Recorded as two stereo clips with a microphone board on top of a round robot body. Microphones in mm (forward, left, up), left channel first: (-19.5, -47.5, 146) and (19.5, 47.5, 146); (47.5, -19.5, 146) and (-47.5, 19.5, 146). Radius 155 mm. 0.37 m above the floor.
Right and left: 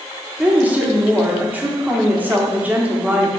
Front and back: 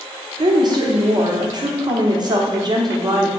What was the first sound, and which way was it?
A woman speaking, 135° left.